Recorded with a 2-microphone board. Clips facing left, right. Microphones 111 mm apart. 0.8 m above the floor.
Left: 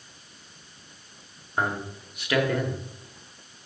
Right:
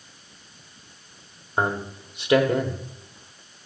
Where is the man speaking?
25° right (ahead or behind), 1.6 m.